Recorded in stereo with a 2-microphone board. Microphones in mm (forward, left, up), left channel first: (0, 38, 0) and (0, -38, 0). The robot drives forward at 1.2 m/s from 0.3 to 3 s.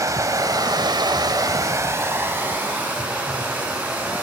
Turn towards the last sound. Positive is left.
turn(degrees=-20)  # may be behind; listen again after turning